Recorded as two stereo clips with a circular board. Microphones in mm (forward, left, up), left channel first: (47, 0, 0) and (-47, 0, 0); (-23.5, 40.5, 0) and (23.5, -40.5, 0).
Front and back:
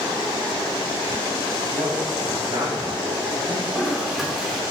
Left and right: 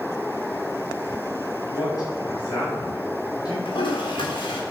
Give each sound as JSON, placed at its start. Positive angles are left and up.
{"t": 1.7, "sound": "a man speaking", "azimuth_deg": 160, "distance_m": 4.5}
{"t": 3.6, "sound": "a toilet flushing", "azimuth_deg": 95, "distance_m": 2.5}